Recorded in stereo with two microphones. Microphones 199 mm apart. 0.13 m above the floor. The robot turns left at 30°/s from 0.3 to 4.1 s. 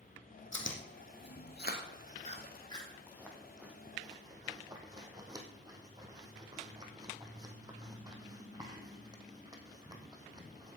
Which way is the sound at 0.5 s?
80° left.